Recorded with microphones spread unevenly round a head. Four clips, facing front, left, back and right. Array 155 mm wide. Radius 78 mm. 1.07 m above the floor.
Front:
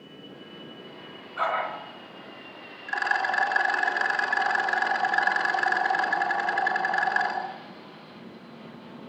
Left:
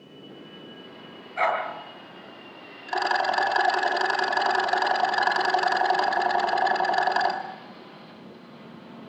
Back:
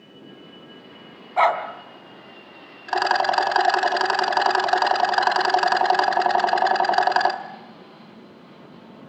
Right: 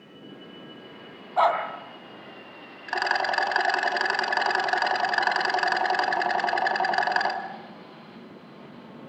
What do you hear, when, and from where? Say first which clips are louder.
1.4 s a dog barking: right 3 dB, back 8 dB; 160° right, 3 m
2.9 s a rattle: left 2 dB, back 7 dB; 165° left, 2.5 m